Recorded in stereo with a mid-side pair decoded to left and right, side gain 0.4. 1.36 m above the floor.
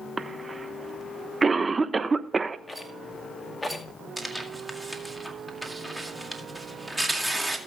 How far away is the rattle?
About 2 m.